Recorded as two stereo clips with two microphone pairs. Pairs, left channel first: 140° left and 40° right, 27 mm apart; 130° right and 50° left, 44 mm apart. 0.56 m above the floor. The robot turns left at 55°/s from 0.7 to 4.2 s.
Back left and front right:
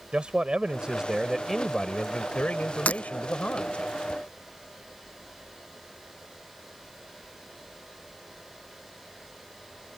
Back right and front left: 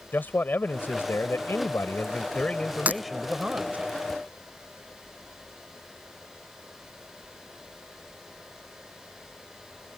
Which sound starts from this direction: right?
A man speaking, at 0.1 s.